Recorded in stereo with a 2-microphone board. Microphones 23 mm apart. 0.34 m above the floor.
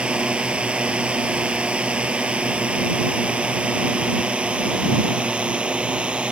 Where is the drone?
75° right (ahead or behind); by 6.3 s 60° right (ahead or behind).